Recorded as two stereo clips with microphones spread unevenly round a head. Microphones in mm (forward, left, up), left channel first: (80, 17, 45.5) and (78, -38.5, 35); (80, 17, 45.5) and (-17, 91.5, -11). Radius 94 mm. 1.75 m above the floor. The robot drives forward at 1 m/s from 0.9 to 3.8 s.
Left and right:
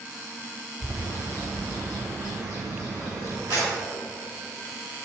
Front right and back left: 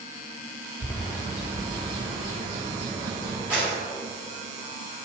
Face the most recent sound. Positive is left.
turn(degrees=-135)